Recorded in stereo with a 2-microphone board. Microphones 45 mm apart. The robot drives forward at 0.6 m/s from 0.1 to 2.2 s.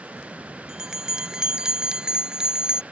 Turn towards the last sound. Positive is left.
turn(degrees=-20)  # may be behind; listen again after turning